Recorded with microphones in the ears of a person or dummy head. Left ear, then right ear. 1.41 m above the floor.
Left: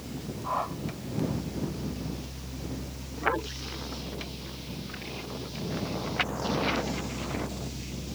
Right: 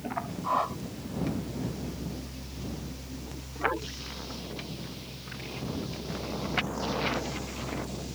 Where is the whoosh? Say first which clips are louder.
Right 2 dB; 20° right (ahead or behind).